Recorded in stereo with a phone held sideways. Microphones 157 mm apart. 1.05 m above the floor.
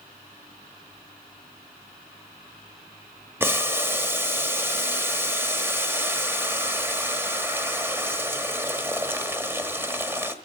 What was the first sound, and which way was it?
Boiling, 15° right (ahead or behind).